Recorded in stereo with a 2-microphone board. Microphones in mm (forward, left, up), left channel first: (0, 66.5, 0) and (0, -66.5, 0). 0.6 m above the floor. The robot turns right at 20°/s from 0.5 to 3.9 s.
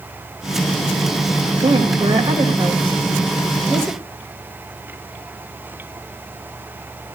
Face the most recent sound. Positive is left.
turn(degrees=5)  # may be behind; listen again after turning